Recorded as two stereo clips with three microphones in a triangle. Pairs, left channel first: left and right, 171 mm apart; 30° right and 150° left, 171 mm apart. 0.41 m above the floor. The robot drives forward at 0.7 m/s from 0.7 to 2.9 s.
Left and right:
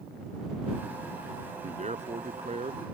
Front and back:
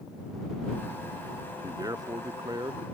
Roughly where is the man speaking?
Behind right.